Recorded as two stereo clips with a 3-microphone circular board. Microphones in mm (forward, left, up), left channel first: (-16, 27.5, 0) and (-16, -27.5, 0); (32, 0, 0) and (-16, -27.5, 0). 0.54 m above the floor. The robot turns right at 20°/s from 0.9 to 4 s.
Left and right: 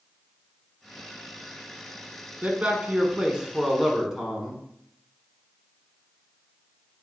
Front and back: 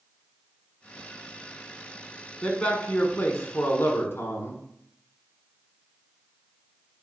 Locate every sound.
2.4 s a man speaking: 25° right, 1.6 m; by 4.6 s 5° left, 1.6 m